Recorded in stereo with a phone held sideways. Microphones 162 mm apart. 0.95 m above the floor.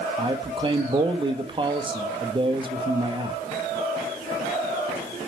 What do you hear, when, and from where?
0.2 s a man speaking: 30° right (ahead or behind), 1.1 m